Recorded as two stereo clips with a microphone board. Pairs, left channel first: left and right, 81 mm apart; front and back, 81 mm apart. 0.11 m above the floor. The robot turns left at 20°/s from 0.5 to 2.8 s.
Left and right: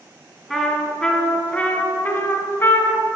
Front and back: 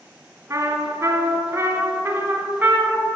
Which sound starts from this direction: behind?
A trumpet, at 0.5 s.